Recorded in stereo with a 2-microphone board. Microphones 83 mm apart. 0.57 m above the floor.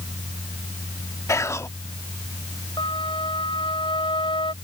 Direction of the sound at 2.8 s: 80° left.